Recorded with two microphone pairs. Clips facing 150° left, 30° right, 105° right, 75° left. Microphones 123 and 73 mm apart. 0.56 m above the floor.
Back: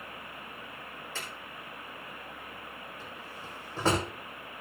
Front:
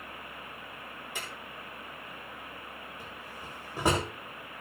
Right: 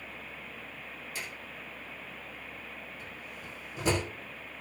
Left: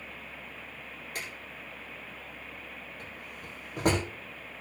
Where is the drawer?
50° left, 7.5 m.